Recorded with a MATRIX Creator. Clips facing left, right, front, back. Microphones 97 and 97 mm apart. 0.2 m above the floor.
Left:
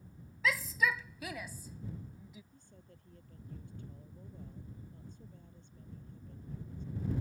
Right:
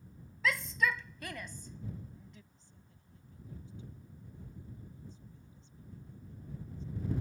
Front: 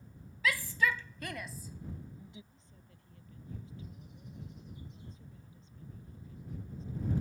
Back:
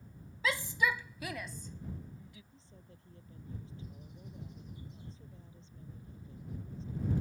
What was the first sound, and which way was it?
A shout, 175° left.